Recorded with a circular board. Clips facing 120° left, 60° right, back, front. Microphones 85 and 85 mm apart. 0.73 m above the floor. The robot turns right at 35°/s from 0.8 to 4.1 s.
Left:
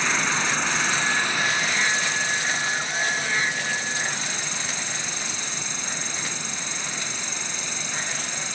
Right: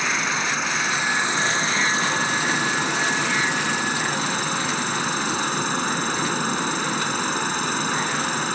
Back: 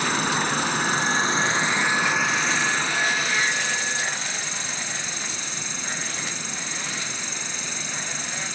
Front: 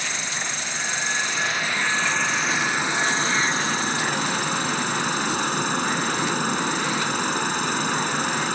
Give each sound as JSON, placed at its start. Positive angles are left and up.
{"t": 0.0, "sound": "an insect", "azimuth_deg": -145}